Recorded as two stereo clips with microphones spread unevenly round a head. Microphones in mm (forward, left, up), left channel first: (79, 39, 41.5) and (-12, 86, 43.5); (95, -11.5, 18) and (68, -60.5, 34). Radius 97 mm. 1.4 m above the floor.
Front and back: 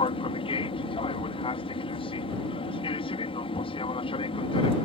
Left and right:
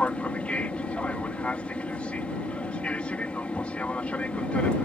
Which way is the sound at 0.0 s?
5° right.